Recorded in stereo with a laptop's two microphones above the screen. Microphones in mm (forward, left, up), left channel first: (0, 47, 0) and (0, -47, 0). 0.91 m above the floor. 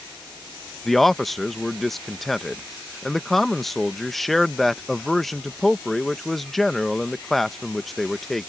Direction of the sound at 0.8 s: Centre (ahead or behind).